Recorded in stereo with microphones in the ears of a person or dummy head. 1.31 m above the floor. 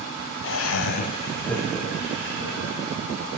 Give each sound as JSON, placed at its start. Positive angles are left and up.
{"t": 0.4, "sound": "laughter", "side_deg": 65, "distance_m": 0.8}